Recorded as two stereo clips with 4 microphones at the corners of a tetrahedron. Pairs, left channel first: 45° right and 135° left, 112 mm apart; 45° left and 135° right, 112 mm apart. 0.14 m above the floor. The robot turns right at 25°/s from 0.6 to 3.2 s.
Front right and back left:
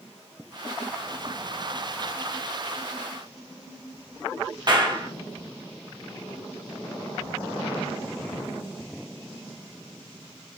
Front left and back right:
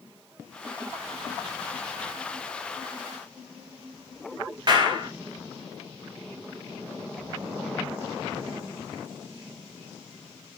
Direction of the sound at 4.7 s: Straight behind.